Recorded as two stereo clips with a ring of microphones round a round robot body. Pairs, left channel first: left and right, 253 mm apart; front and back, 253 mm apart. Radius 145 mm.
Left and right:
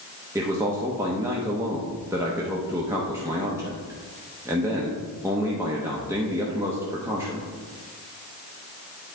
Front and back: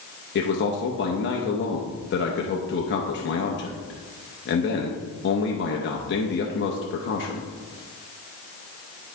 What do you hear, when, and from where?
0.3 s a man speaking: 15° right, 0.8 m